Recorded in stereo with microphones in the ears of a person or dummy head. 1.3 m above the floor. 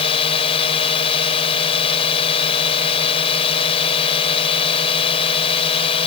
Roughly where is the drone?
Left.